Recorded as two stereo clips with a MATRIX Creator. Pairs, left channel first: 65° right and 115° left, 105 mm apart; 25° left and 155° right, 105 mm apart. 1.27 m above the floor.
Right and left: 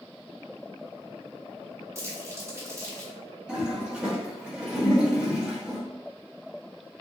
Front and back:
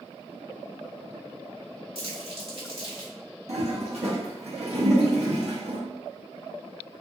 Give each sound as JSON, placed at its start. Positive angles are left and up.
{"t": 1.9, "sound": "crumpling", "azimuth_deg": 175, "distance_m": 1.9}
{"t": 3.5, "sound": "a toilet flushing", "azimuth_deg": -165, "distance_m": 1.2}